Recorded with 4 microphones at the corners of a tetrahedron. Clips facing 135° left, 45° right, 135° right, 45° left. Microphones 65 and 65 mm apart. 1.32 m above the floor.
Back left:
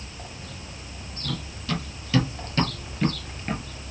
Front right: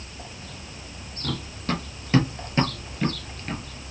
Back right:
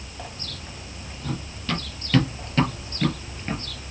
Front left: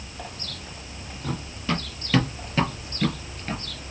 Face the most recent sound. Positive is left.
turn(degrees=175)